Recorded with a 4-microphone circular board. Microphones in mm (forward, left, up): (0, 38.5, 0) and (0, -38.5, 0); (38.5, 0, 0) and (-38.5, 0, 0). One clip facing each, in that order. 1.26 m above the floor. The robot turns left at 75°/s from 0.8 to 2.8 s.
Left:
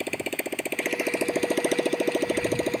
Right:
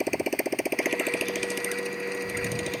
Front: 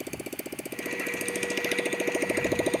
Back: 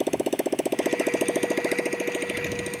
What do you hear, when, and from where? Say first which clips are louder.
0.0 s a motorcycle: right 3 dB, back 12 dB; 165° right; by 2.8 s 30° left